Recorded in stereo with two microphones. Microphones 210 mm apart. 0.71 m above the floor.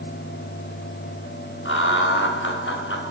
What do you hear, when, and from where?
1.6 s laughter: 70° left (ahead or behind), 4 m